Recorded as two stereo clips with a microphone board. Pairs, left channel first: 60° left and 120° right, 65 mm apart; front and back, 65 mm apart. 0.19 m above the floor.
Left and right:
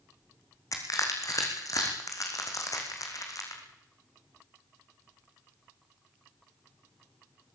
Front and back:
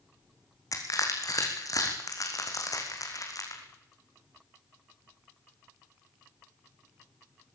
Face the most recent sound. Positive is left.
turn(degrees=30)